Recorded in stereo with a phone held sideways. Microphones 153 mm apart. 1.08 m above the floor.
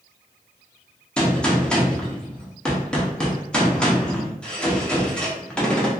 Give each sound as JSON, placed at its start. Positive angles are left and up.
{"t": 1.2, "sound": "a gunshot", "side_deg": 5, "distance_m": 0.6}